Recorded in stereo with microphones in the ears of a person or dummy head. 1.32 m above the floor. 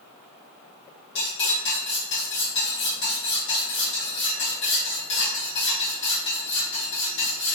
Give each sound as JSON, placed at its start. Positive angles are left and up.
{"t": 1.1, "sound": "cutlery clinking", "side_deg": 65, "distance_m": 1.4}